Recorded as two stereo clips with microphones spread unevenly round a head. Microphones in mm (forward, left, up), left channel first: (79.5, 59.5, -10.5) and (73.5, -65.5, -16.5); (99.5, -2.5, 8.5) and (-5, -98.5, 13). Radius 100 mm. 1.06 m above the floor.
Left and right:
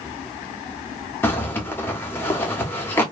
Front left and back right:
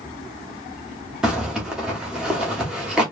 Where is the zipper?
145° left, 0.6 m.